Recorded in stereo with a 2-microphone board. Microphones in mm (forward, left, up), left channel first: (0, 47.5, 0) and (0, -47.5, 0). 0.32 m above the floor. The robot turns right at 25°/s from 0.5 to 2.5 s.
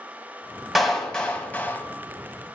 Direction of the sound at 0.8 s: Centre (ahead or behind).